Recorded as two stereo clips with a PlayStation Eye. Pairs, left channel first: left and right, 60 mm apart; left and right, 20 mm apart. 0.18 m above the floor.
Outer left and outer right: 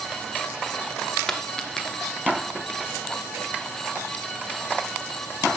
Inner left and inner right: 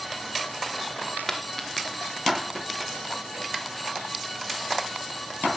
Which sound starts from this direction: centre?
A dropped coin, at 1.3 s.